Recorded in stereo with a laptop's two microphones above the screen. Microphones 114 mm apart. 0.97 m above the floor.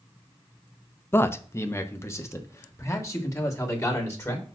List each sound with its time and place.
1.1 s a man speaking: 20° left (ahead or behind), 0.5 m; by 4.5 s 25° left (ahead or behind), 2 m